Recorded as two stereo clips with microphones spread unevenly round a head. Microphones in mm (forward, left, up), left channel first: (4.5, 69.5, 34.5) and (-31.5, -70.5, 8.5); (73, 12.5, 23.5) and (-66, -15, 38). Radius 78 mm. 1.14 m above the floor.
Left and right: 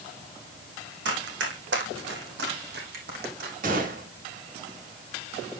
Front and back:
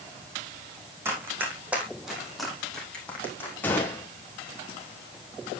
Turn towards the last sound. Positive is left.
turn(degrees=-65)